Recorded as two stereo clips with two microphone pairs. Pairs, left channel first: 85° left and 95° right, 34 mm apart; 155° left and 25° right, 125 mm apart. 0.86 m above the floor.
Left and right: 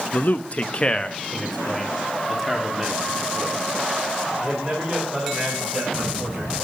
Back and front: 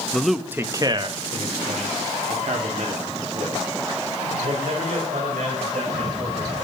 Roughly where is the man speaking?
Left.